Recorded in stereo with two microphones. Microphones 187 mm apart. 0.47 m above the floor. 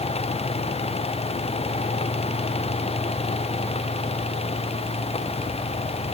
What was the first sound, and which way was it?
Only background noise.